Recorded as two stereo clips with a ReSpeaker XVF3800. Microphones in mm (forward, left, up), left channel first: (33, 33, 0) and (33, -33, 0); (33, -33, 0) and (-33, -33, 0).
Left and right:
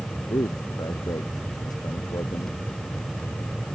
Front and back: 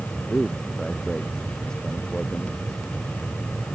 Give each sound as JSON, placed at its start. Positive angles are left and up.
{"t": 0.3, "sound": "a man speaking", "azimuth_deg": 80}